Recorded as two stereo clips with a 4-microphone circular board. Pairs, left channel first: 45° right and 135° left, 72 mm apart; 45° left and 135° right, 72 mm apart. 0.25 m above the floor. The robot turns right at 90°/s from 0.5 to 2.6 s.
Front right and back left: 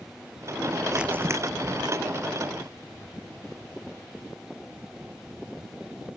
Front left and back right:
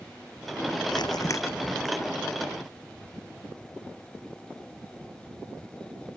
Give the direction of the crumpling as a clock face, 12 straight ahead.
10 o'clock.